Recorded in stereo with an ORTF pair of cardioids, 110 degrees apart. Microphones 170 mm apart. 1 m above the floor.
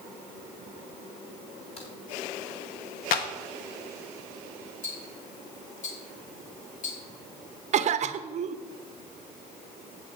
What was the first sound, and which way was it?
A crack, 40° left.